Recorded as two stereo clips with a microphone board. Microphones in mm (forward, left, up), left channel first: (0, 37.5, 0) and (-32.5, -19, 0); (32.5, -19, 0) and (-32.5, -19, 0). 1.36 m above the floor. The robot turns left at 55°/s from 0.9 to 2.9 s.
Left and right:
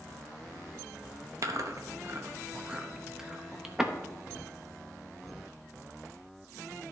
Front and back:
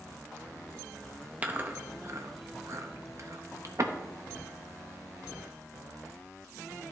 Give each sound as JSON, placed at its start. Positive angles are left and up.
{"t": 1.4, "sound": "chewing", "azimuth_deg": -120, "distance_m": 0.7}